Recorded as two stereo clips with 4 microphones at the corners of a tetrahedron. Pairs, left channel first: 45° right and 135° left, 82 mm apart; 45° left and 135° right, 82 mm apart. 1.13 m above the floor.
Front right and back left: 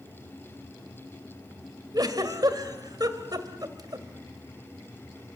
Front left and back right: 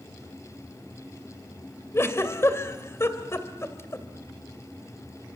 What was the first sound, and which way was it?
A giggle, 100° left.